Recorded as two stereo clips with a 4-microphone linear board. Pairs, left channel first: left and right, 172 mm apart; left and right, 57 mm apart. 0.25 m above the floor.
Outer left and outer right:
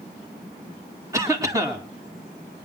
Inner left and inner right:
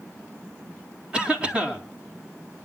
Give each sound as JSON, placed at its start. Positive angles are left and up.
{"t": 1.1, "sound": "a cough", "side_deg": -20, "distance_m": 2.5}